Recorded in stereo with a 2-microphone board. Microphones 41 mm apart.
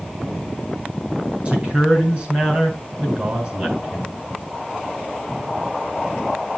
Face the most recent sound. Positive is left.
turn(degrees=-30)  # may be behind; listen again after turning